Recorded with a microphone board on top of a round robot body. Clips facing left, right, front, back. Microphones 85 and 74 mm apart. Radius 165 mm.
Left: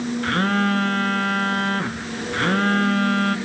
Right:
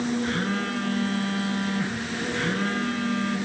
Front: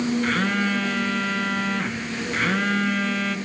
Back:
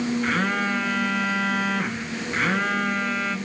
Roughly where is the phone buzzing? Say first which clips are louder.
Left 6 dB, front 1 dB; left.